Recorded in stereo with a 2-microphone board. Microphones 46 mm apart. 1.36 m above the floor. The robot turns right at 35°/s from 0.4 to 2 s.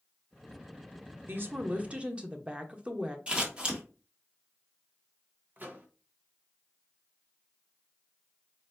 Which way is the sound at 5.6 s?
40° right (ahead or behind).